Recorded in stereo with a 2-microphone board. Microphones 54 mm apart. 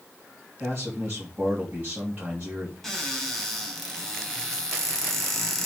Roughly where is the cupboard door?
Centre.